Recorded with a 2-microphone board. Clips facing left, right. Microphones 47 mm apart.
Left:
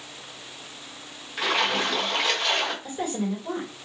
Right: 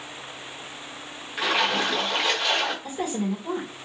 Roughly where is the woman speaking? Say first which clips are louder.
Right 1 dB; centre.